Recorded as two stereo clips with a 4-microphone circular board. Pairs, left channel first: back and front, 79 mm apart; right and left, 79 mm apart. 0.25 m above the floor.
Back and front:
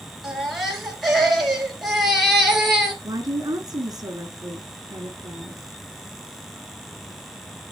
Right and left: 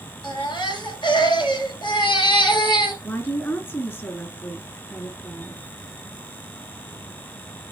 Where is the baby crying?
90° right, 2.5 m.